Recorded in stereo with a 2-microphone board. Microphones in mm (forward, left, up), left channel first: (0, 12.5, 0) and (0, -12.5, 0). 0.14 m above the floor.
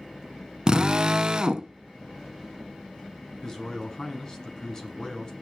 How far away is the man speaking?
About 1.7 m.